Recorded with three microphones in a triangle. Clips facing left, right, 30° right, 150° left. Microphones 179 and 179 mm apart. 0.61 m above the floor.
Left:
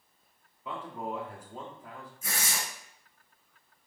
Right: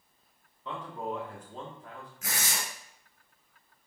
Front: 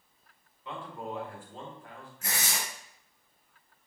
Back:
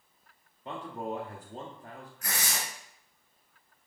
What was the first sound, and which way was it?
A man speaking, 170° left.